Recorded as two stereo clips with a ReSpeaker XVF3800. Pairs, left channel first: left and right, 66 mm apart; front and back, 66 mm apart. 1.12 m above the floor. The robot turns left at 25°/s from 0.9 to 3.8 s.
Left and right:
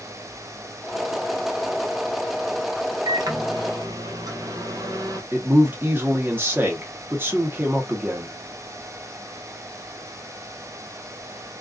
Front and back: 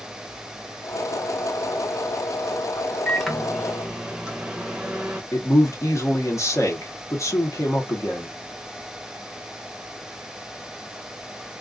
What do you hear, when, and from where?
3.0 s a microwave: 85° right, 0.7 m; by 5.2 s 105° right, 0.7 m
5.3 s a man speaking: 35° right, 0.9 m